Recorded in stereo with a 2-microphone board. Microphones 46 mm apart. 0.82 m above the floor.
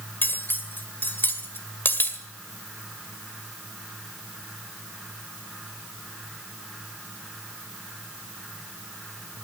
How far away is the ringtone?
I don't hear a ringtone.